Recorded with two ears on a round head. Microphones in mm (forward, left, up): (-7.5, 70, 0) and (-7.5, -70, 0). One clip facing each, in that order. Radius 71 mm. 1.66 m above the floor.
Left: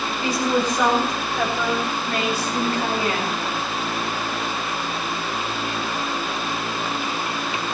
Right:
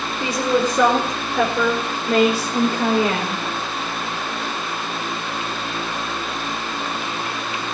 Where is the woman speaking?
80° right, 4.5 m.